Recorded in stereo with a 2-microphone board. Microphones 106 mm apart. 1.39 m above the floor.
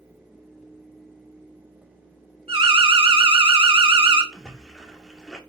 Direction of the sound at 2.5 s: 65° right (ahead or behind).